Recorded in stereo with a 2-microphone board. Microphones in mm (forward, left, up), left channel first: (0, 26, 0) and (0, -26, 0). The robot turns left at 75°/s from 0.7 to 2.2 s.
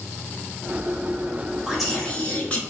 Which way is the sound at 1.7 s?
170° right.